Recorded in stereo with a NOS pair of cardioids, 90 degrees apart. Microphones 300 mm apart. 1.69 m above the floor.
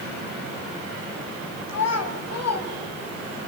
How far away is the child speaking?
About 8.5 m.